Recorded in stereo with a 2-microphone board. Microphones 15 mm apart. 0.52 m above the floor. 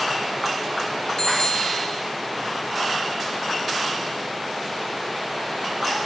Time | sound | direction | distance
1.2 | a bicycle bell | 50° left (ahead or behind) | 6 m